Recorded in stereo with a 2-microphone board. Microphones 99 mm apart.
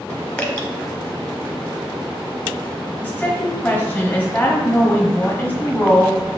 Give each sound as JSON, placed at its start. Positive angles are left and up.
{"t": 0.4, "sound": "dripping", "side_deg": 20, "distance_m": 0.9}
{"t": 3.0, "sound": "a woman speaking", "side_deg": 20, "distance_m": 1.2}